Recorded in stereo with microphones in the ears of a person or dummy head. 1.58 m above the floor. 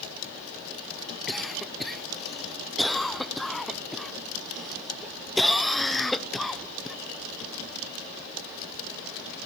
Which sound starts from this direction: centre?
A cough, at 1.3 s.